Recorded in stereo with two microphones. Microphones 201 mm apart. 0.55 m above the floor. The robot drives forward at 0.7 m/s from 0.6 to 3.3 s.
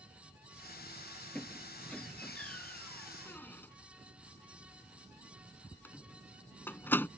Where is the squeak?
5° left (ahead or behind); by 7.1 s 10° left (ahead or behind).